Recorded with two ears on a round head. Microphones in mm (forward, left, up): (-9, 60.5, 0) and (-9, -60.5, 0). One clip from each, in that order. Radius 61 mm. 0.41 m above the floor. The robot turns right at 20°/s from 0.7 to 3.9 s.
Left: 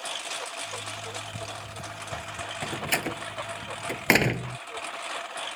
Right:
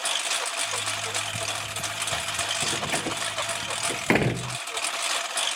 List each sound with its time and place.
0.0 s a lawn mower: 140° right; by 5.6 s 75° right
2.6 s a door slam: 70° left (ahead or behind); by 4.6 s 80° left